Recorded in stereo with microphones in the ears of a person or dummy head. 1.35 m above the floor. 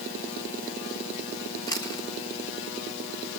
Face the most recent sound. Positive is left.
turn(degrees=15)  # may be behind; listen again after turning